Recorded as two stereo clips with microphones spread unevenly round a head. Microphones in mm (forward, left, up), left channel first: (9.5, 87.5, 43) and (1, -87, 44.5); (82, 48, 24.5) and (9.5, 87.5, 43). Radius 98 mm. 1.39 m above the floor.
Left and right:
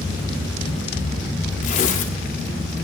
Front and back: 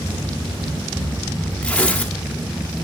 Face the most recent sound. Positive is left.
turn(degrees=55)